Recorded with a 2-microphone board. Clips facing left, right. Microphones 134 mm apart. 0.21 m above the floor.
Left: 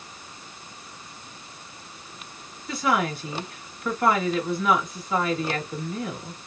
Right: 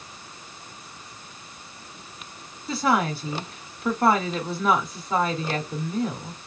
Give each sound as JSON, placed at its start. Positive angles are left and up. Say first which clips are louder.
{"t": 2.7, "sound": "a woman speaking", "louder": "right 2 dB", "side_deg": -35, "distance_m": 1.4}